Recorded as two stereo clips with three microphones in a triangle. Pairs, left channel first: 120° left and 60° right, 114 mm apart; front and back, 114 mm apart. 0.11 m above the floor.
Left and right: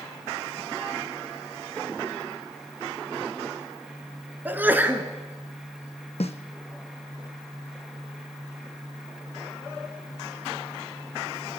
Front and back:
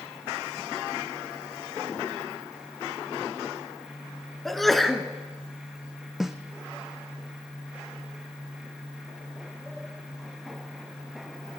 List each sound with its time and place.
4.5 s a sneeze: 85° right, 1.1 m
6.2 s a snare drum: 95° left, 0.9 m